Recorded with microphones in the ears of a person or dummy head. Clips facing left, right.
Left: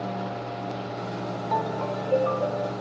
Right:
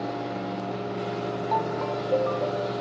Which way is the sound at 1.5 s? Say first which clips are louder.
Left 1 dB; 15° left (ahead or behind).